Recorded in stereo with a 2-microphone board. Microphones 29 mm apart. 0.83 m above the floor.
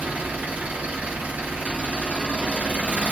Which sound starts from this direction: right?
An engine running, at 0.0 s.